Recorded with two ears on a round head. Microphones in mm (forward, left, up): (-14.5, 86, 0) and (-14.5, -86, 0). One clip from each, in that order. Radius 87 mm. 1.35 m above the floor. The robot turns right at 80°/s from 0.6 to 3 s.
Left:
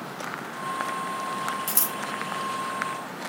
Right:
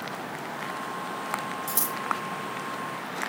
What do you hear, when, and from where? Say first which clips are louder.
1.7 s scissors: left 1 dB; 30° left (ahead or behind), 1.2 m; by 1.9 s 5° left (ahead or behind), 1.2 m